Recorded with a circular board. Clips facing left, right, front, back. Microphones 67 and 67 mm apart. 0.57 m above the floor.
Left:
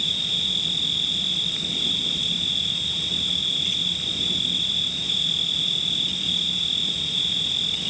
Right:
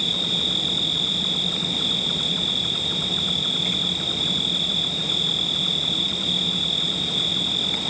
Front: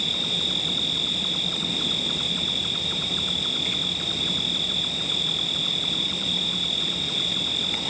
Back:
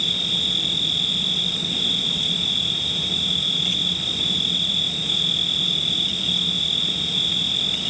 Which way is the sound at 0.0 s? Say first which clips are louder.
Right 3 dB, back 2 dB; 50° right.